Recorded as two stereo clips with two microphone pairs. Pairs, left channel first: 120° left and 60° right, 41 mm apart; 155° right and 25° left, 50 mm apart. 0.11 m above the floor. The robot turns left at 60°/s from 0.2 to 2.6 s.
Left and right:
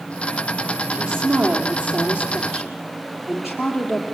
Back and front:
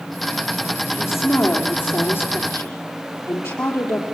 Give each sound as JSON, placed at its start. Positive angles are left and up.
{"t": 0.9, "sound": "a woman speaking", "azimuth_deg": -40, "distance_m": 4.0}